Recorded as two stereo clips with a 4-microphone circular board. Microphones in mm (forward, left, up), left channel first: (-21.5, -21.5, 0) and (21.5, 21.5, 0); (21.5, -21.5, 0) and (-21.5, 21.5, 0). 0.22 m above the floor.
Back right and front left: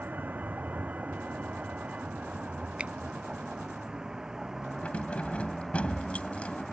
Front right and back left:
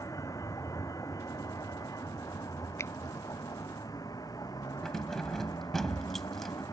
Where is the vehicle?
15° right; by 6.7 s 45° right.